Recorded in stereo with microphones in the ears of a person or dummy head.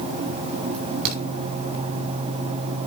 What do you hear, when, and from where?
0.7 s a crack: 50° right (ahead or behind), 6 m